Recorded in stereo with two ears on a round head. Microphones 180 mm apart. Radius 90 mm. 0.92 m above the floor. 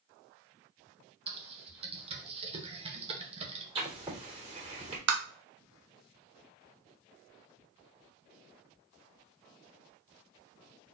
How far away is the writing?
About 2.5 m.